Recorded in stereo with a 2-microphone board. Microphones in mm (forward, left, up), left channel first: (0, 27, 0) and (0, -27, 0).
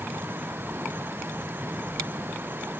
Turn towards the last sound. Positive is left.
No sound to turn to.